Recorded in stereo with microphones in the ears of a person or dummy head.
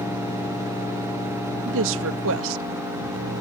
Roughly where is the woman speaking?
Right.